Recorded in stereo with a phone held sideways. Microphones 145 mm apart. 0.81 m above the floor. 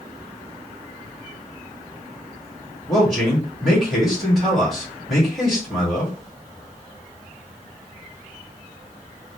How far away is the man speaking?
About 1.8 m.